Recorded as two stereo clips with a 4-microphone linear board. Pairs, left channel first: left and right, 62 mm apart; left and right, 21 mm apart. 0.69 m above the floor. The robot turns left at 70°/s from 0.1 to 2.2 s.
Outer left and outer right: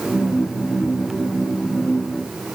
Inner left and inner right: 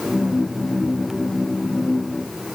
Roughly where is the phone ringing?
No phone ringing in this recording.